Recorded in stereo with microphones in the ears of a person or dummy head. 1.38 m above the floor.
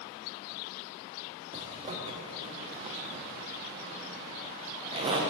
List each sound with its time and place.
1.5 s a zipper: 25° right (ahead or behind), 0.7 m